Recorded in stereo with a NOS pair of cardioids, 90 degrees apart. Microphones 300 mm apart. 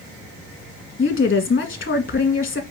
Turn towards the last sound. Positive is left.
turn(degrees=40)